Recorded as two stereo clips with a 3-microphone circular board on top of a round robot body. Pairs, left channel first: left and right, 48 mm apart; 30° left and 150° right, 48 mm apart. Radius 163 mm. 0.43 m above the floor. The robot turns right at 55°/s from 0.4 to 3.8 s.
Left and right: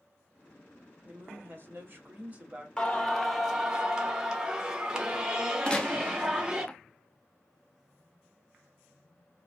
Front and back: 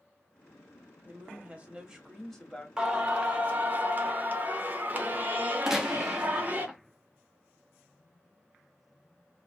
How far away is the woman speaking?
About 1.7 m.